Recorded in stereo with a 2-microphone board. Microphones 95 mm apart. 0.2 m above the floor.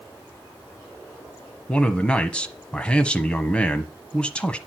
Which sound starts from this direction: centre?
A man speaking, at 1.7 s.